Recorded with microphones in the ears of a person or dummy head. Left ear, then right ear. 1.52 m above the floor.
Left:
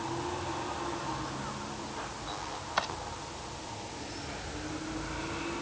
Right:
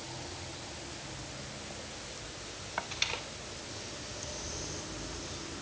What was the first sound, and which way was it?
Chopping, 80° left.